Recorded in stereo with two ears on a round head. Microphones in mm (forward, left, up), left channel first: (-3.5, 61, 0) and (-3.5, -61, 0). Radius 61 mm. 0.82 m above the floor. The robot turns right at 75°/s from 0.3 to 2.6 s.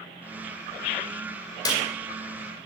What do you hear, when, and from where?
1.6 s a clap: 30° left (ahead or behind), 2 m; by 1.8 s 45° left (ahead or behind), 2 m